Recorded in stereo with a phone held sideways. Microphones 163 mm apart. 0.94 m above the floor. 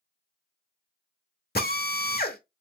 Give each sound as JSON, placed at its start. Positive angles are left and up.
{"t": 1.6, "sound": "a drill", "side_deg": 80, "distance_m": 1.0}